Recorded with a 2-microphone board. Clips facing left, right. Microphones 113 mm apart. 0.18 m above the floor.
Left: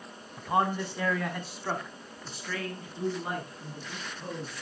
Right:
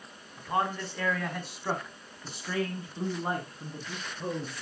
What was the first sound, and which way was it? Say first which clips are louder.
A man speaking: left 3 dB; 20° left (ahead or behind).